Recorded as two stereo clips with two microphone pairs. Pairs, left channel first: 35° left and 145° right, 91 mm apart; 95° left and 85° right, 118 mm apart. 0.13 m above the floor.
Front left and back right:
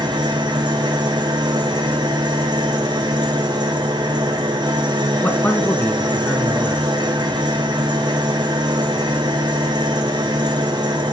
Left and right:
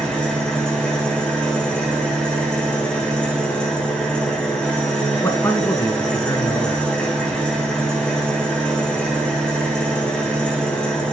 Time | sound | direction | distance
0.0 | an engine running | 175° left | 2.5 m
5.2 | a man speaking | 80° left | 1.1 m